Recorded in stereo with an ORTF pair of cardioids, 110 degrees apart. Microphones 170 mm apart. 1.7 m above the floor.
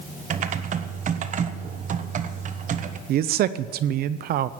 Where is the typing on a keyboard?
50° right, 1.3 m.